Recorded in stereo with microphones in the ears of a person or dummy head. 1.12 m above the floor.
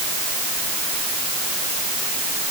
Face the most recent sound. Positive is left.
No sound to turn to.